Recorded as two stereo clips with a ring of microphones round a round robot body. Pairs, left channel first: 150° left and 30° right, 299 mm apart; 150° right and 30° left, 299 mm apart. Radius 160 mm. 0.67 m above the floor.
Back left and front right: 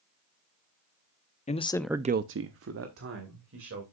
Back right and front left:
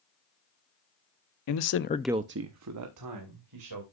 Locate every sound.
1.5 s a man speaking: 145° right, 1.1 m; by 3.8 s 20° left, 3 m